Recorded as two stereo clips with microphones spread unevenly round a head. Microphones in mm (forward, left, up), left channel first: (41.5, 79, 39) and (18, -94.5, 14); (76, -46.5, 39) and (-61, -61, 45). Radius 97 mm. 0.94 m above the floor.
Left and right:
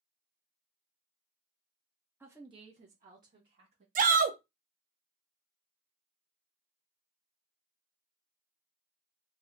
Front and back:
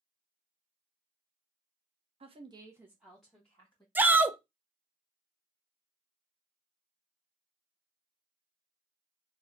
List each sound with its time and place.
2.2 s a woman speaking: 165° right, 0.7 m; by 3.9 s 70° right, 1.3 m
4.0 s a shout: 95° right, 0.6 m